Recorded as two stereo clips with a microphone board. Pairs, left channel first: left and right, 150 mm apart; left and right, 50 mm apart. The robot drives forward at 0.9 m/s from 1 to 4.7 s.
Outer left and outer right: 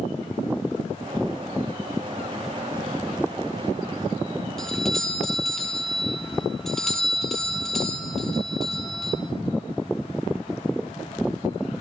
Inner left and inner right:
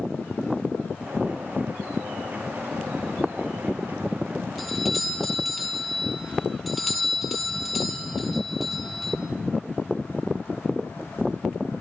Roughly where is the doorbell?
Centre.